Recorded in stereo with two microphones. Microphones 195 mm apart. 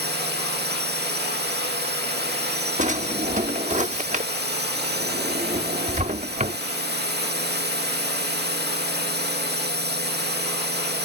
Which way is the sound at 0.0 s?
60° right (ahead or behind).